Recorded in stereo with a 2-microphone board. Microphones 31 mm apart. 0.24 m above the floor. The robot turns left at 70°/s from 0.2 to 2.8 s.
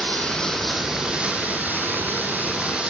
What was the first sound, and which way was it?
Running water, 40° left.